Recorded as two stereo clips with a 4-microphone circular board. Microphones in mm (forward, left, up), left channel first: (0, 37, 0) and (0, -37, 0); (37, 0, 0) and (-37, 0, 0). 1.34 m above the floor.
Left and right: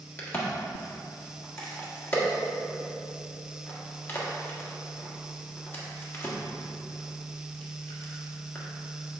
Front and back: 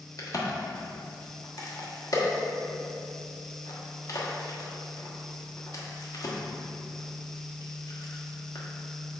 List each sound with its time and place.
0.2 s a crack: 30° left, 1.5 m